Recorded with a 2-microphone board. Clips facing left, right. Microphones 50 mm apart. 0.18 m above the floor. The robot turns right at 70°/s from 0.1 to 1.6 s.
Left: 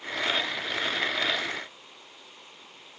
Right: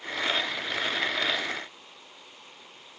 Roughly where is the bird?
No bird in this recording.